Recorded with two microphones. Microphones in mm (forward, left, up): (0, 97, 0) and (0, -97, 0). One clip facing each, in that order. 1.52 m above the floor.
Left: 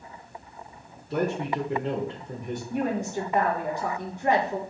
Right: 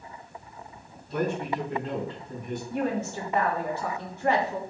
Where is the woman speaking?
15° left (ahead or behind), 1.3 m.